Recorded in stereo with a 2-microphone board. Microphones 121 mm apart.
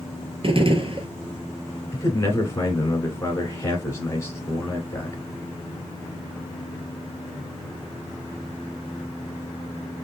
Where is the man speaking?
20° left (ahead or behind), 1.1 m.